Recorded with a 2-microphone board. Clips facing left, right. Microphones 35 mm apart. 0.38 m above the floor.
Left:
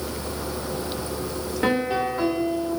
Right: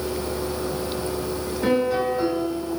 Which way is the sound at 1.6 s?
45° left (ahead or behind).